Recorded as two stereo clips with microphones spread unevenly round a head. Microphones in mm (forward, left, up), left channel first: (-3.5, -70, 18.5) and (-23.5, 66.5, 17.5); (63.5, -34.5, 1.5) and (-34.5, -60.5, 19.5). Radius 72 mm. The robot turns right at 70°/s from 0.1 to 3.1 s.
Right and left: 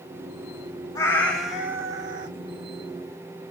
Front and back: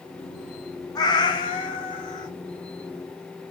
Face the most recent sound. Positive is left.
turn(degrees=125)